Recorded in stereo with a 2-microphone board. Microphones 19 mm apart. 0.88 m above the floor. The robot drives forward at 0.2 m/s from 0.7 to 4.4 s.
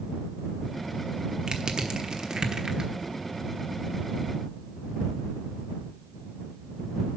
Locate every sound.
1.5 s crushing: 60° right (ahead or behind), 1.1 m; by 2.9 s 50° right (ahead or behind), 1.2 m